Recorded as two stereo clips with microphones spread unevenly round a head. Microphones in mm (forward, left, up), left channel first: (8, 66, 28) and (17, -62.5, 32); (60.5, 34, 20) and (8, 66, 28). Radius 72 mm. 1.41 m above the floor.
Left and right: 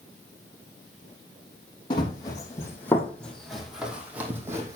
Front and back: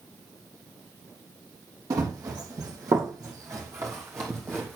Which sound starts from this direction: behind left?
Running footsteps, at 1.9 s.